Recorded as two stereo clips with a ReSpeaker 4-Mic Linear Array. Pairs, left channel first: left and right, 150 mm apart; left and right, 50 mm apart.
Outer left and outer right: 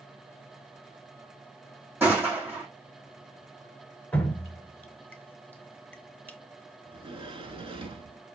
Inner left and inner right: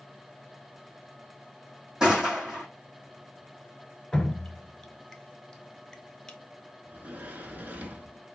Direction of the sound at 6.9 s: 40° right (ahead or behind).